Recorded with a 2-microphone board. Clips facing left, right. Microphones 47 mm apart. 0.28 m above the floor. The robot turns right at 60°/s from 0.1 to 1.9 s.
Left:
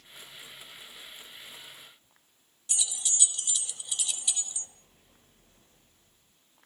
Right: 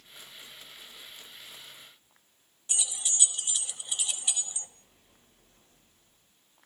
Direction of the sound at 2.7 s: 25° right (ahead or behind).